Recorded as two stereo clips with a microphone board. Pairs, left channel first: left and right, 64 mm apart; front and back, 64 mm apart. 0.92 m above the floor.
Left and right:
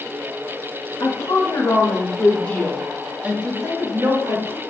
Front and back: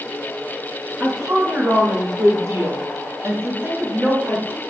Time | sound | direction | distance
1.0 | a woman speaking | 120° left | 1.5 m